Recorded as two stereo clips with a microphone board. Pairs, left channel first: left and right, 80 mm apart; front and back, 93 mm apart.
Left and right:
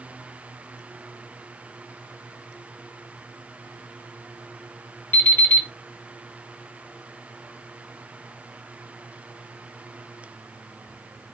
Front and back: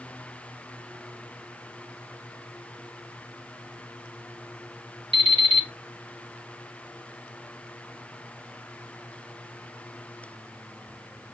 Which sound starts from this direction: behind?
An alarm clock, at 5.1 s.